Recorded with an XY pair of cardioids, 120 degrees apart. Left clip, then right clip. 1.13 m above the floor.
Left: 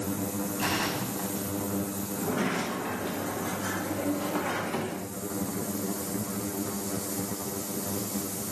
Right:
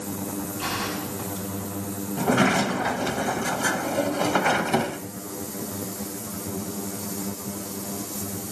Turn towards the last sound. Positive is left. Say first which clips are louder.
# right 9 dB
turn(degrees=-60)